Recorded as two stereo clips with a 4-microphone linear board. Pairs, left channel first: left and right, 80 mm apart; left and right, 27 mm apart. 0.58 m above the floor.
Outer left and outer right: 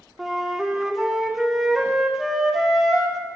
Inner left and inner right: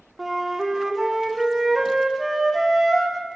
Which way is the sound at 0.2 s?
5° right (ahead or behind).